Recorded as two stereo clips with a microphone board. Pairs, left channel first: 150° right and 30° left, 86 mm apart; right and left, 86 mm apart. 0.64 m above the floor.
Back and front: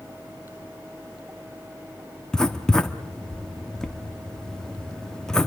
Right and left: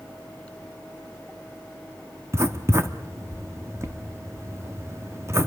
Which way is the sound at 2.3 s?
130° left.